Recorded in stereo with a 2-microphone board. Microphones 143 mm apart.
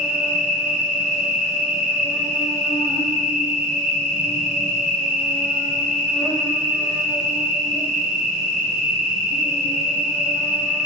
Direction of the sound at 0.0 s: 50° left (ahead or behind).